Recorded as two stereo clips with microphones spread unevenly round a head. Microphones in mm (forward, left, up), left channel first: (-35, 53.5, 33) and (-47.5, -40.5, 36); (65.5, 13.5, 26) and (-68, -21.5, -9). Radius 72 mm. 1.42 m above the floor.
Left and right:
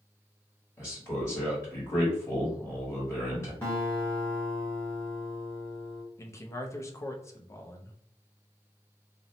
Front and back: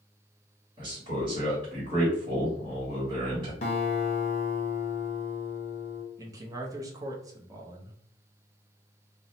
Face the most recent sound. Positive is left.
turn(degrees=140)